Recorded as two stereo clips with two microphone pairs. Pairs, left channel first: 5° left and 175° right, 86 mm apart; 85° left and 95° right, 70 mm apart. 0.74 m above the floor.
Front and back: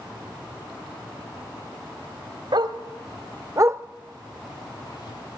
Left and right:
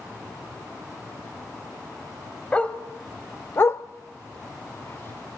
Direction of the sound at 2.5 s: 160° left.